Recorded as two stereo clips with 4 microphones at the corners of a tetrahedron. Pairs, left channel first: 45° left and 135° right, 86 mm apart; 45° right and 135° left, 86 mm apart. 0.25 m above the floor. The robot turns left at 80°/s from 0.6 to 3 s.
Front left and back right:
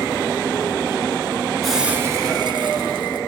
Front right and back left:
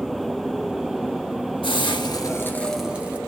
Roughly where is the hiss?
Ahead right.